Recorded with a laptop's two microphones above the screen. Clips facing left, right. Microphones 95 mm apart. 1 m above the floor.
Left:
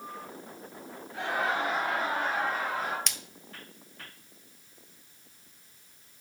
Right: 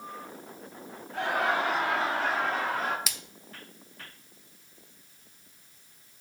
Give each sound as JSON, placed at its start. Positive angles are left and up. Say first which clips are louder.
{"t": 1.1, "sound": "laughter", "louder": "right 2 dB", "side_deg": -60, "distance_m": 1.7}
{"t": 3.1, "sound": "a splash", "louder": "even", "side_deg": -5, "distance_m": 0.8}